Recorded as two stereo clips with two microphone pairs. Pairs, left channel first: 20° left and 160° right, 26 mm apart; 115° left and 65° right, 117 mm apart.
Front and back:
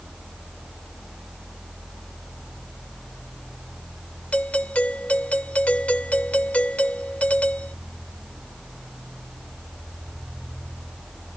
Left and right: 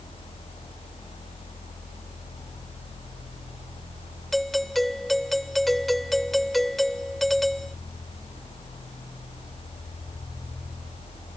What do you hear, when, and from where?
4.3 s a doorbell: 25° left